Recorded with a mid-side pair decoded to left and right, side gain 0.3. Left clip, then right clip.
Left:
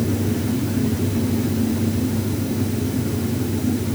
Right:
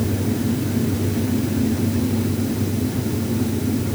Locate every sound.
Only background noise.